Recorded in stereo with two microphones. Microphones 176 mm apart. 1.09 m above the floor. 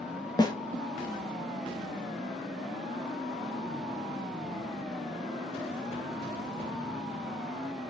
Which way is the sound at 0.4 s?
25° left (ahead or behind).